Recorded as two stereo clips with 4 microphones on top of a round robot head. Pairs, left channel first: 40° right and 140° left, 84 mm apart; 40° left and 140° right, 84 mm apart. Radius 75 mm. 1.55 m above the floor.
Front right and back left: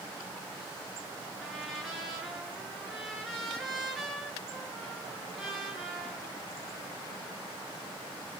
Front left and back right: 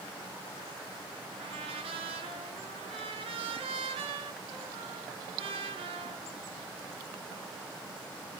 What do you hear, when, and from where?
1.4 s a trumpet: 130° right, 6 m